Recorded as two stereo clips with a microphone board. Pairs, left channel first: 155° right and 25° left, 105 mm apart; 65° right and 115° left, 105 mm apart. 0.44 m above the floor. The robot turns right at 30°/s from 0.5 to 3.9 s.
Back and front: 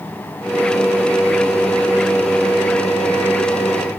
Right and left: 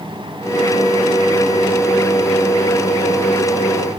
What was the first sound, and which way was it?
Only background noise.